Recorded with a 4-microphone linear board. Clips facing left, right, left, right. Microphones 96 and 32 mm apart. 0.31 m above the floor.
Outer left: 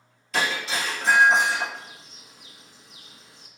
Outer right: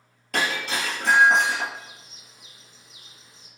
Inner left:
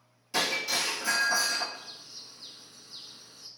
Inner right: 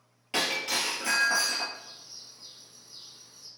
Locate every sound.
0.3 s breaking glass: 55° right (ahead or behind), 1.6 m
1.7 s a bird: 65° left (ahead or behind), 0.5 m